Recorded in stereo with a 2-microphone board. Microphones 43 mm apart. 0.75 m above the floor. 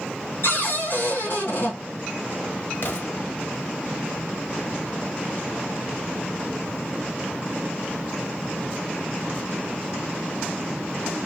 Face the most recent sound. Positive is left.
turn(degrees=60)  # may be behind; listen again after turning